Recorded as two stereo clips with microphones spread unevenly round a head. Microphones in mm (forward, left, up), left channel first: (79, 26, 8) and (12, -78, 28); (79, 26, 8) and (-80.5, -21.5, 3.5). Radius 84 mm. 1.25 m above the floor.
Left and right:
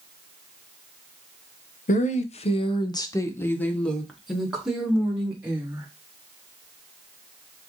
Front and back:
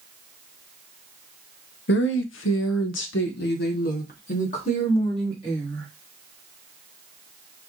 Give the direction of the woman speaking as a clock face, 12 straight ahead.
11 o'clock.